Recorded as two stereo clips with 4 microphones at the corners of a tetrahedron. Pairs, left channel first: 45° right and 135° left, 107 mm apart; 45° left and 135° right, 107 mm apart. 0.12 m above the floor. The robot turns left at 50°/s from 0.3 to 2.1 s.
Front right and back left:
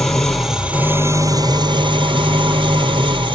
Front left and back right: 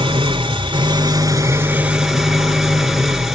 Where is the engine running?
135° right, 1.6 m; by 3.4 s 135° left, 1.6 m.